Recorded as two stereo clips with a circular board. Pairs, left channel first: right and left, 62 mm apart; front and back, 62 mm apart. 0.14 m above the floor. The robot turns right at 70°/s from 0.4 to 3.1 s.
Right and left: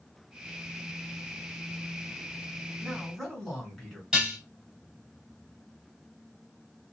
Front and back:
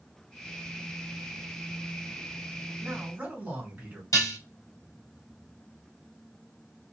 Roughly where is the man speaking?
Behind.